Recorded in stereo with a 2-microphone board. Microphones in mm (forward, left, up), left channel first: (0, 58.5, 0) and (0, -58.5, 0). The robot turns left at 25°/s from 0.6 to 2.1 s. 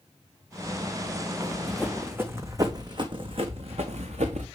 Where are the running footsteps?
15° left (ahead or behind), 1.6 m; by 4.5 s 75° right (ahead or behind), 1.6 m.